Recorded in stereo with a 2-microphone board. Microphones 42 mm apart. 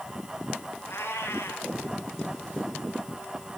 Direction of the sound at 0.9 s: 85° left.